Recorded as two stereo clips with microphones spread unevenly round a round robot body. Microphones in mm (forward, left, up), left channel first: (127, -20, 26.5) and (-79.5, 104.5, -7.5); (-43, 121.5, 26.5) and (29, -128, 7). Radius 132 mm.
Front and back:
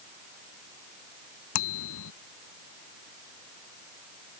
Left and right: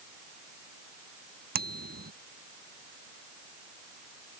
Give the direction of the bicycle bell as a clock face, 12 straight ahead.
1 o'clock.